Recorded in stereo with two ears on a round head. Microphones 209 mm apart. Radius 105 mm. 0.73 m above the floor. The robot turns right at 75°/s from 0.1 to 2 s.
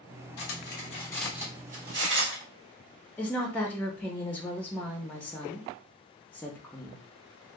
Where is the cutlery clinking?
70° left (ahead or behind), 0.9 m; by 2.4 s 55° right (ahead or behind), 0.9 m.